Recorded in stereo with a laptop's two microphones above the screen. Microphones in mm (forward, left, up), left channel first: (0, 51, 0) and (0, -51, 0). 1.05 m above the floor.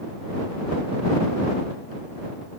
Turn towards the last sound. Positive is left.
No sound to turn to.